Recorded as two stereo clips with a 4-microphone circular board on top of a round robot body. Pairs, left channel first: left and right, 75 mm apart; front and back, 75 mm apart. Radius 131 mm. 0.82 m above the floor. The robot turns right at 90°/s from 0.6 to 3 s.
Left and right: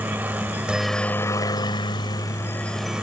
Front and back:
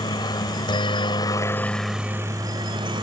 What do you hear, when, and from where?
0.0 s a helicopter: 25° right; by 3.0 s 170° right